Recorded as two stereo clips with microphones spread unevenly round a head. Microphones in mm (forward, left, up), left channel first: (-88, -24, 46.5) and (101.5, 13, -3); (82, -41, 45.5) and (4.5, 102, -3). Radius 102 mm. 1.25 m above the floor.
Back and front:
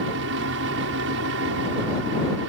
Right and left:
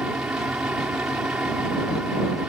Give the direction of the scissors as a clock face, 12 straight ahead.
No scissors in this recording.